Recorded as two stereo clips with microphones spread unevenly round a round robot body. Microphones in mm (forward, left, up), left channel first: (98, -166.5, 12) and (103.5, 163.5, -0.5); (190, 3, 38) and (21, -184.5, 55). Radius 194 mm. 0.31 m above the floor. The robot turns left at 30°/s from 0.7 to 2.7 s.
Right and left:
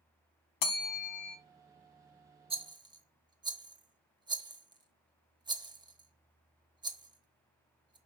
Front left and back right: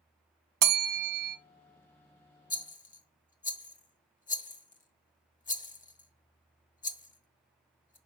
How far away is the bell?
About 0.5 m.